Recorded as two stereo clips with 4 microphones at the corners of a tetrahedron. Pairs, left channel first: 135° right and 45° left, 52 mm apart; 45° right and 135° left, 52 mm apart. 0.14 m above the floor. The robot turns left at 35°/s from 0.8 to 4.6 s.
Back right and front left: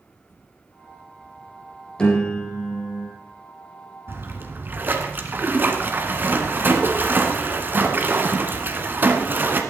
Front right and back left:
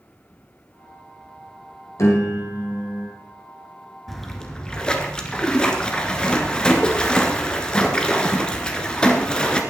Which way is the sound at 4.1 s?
35° left.